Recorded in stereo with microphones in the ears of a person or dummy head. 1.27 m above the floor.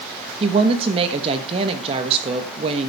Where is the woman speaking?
30° right (ahead or behind), 1.3 m.